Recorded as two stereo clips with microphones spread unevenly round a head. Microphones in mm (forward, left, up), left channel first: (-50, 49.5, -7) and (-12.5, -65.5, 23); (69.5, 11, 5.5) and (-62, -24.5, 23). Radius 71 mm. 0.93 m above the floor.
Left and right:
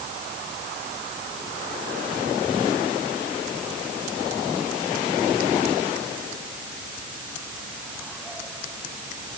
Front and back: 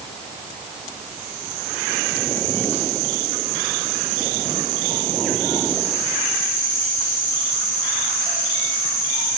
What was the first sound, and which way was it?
Only background noise.